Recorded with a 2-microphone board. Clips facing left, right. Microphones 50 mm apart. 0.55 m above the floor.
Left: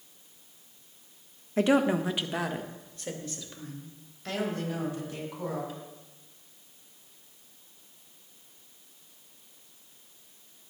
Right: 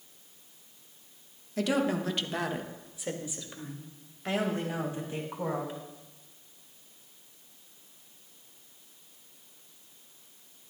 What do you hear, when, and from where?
1.6 s a woman speaking: 30° left (ahead or behind), 1.0 m; by 5.7 s 30° right (ahead or behind), 4 m